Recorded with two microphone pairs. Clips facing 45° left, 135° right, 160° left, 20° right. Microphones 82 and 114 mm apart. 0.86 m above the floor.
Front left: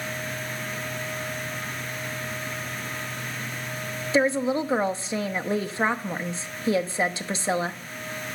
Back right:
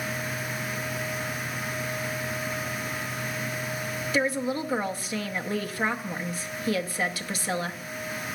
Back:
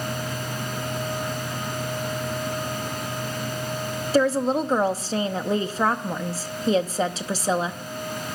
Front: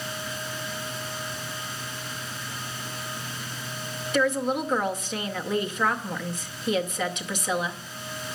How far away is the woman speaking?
About 0.7 m.